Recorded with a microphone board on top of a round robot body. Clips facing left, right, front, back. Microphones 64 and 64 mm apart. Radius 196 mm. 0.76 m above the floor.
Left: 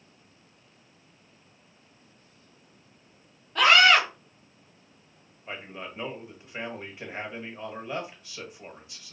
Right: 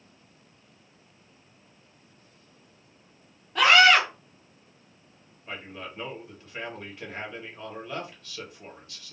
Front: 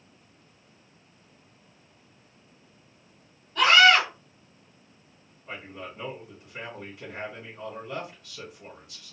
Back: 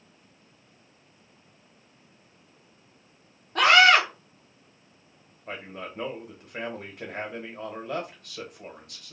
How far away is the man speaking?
About 1.6 m.